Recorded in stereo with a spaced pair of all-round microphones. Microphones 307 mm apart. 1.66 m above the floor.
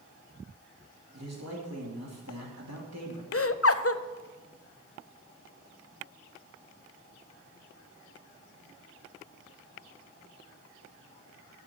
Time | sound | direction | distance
1.1 | a man speaking | 60° right (ahead or behind) | 2.5 m
3.3 | laughter | 50° left (ahead or behind) | 0.6 m